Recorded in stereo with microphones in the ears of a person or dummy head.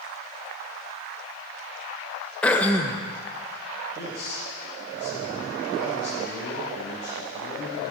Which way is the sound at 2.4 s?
10° left (ahead or behind).